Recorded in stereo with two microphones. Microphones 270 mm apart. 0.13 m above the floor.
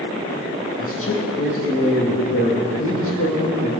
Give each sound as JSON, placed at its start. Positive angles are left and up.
{"t": 0.8, "sound": "a man speaking", "side_deg": 50, "distance_m": 4.0}